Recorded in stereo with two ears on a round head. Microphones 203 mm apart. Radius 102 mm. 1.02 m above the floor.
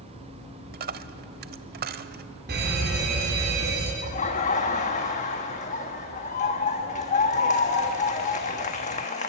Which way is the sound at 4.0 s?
35° left (ahead or behind).